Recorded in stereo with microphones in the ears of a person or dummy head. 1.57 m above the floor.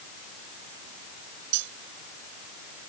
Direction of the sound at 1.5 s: 65° right (ahead or behind).